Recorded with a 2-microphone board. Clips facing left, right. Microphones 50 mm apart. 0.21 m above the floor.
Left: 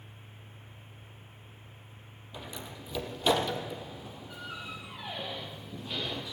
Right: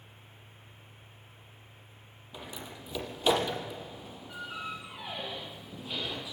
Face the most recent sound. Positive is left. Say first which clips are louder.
# even
turn(degrees=-5)  # may be behind; listen again after turning